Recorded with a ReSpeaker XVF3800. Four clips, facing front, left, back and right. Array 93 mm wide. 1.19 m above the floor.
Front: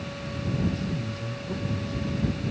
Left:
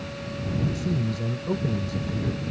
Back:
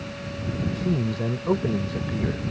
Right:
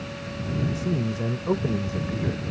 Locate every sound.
0.8 s a man speaking: 150° right